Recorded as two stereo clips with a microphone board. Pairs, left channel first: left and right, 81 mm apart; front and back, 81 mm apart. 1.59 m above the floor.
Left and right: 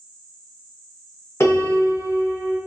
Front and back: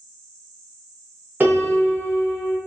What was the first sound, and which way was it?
A piano, 125° left.